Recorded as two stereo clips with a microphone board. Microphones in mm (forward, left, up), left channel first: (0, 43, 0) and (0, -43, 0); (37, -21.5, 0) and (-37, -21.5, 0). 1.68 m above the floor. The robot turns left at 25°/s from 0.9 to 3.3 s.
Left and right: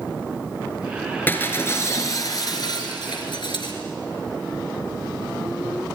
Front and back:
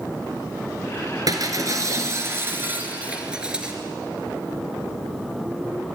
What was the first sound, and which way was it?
Breaking glass, 155° left.